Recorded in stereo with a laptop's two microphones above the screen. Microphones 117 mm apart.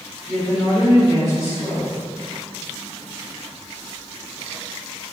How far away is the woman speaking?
About 3 m.